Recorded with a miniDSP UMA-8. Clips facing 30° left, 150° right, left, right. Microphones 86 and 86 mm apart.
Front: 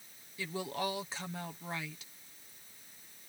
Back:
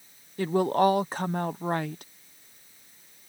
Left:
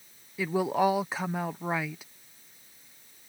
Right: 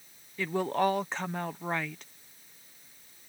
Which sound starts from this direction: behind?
A woman speaking, at 0.4 s.